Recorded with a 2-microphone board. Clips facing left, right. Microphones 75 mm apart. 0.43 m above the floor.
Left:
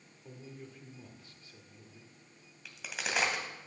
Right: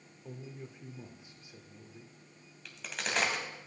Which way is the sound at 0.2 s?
15° right (ahead or behind).